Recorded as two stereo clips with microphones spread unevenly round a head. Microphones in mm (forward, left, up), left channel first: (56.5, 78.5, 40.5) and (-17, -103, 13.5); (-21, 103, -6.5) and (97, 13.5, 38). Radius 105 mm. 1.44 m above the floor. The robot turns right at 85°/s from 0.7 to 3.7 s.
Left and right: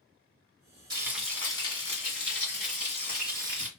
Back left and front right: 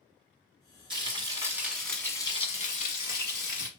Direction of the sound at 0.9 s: 40° right.